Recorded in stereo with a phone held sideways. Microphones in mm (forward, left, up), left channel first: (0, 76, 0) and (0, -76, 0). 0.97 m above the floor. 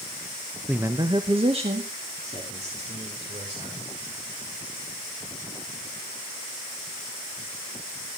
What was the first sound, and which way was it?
A man speaking, 5° right (ahead or behind).